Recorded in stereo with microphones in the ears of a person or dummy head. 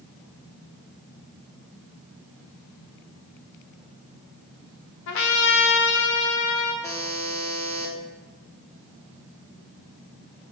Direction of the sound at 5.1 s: 60° left (ahead or behind).